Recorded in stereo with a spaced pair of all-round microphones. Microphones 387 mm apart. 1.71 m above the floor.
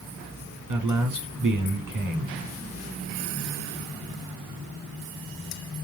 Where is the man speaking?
55° right (ahead or behind), 1.0 m.